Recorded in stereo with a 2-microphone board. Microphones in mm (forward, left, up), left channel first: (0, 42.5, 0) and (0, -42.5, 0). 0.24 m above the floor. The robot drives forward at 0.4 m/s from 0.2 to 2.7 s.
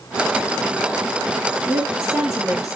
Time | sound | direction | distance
1.7 | a woman speaking | 10° right (ahead or behind) | 5.5 m